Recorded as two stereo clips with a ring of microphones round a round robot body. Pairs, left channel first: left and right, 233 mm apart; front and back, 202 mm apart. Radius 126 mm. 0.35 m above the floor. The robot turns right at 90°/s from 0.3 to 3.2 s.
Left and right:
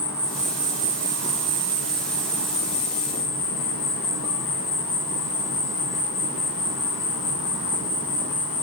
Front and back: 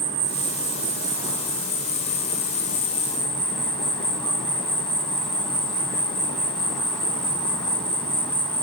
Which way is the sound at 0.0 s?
165° left.